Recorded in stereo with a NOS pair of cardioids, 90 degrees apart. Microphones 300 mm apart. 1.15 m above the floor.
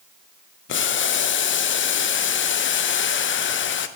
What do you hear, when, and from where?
0.7 s boiling: 40° left, 0.6 m